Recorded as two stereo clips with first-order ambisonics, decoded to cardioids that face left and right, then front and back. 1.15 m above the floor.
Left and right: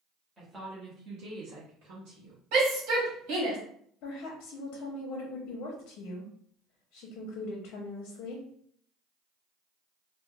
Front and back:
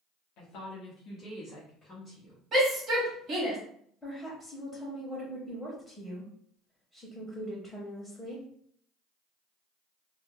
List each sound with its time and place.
0.4 s a woman speaking: 10° right, 0.9 m; by 2.4 s 90° right, 1.1 m
2.5 s a shout: 115° right, 1.4 m
4.0 s a woman speaking: 80° left, 0.6 m